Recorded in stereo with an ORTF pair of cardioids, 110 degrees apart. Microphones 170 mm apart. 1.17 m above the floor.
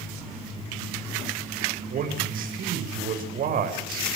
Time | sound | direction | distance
1.9 | a man speaking | 55° right | 6 m